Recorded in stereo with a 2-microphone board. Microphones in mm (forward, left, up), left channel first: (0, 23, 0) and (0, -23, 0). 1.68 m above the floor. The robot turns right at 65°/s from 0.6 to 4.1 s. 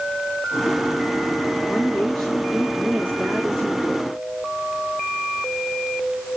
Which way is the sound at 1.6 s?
145° left.